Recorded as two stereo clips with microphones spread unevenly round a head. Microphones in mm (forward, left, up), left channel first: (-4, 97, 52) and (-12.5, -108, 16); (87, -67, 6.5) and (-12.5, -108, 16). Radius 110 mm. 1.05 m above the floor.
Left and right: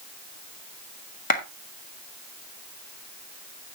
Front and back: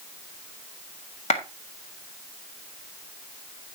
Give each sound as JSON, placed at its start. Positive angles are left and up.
{"t": 1.3, "sound": "a clap", "azimuth_deg": 35, "distance_m": 1.6}